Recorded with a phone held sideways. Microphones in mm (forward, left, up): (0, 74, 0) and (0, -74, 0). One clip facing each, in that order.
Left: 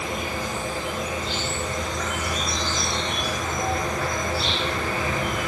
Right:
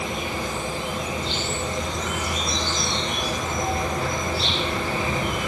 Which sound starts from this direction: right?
An insect, at 0.0 s.